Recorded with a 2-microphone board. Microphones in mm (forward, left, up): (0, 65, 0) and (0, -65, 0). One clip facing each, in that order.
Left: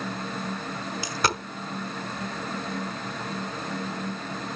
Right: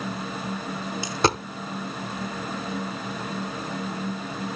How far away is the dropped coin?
About 0.7 m.